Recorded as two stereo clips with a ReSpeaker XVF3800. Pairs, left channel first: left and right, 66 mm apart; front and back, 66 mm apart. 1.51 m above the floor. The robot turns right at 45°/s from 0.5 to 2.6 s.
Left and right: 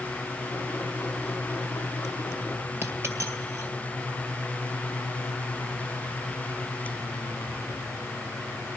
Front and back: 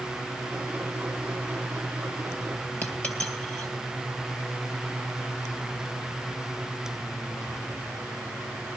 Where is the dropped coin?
50° right, 2 m.